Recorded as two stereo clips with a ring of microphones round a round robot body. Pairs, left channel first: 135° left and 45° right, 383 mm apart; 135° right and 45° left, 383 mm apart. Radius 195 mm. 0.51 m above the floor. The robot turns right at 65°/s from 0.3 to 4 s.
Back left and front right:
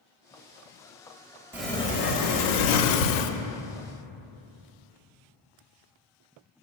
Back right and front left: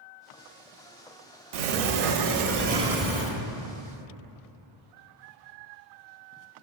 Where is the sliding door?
40° left, 0.5 m; by 3.3 s 155° left, 0.5 m.